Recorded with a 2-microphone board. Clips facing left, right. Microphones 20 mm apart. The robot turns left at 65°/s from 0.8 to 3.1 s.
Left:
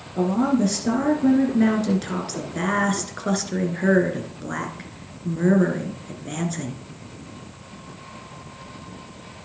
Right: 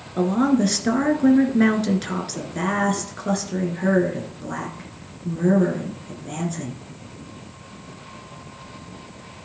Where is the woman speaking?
75° right, 1.9 m; by 6.8 s 140° left, 1.9 m.